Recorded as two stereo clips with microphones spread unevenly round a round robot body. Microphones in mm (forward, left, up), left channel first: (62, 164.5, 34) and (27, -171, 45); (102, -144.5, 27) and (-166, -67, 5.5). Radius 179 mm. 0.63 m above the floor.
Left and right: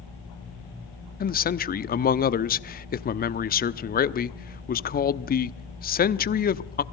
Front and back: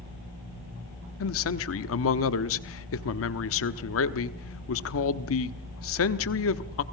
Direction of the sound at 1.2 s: 25° left.